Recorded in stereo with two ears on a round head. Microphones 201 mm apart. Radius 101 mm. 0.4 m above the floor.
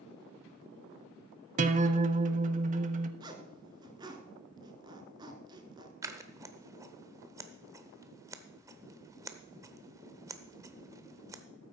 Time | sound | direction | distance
1.6 | a guitar | 35° right (ahead or behind) | 0.6 m
3.2 | a zipper | 20° right (ahead or behind) | 1.1 m
6.0 | scissors | 15° right (ahead or behind) | 0.8 m